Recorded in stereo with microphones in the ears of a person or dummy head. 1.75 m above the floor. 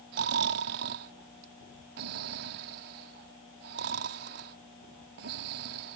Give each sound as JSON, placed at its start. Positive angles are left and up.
{"t": 0.1, "sound": "snoring", "side_deg": -50}